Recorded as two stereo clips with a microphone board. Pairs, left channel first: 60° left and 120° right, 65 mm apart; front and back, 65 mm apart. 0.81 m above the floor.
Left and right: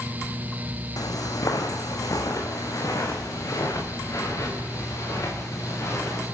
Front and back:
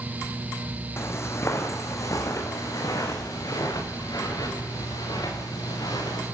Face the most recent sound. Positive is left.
turn(degrees=15)